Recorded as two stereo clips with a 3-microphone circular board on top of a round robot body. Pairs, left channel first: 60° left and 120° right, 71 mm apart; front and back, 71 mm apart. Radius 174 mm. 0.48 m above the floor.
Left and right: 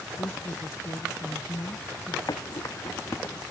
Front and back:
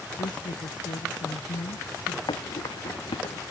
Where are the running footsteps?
20° left; by 3.4 s straight ahead.